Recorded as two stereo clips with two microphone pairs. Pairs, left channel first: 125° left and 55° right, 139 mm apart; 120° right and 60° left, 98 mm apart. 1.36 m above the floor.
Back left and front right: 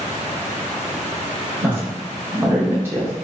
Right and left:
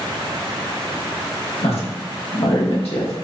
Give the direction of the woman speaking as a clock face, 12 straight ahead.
4 o'clock.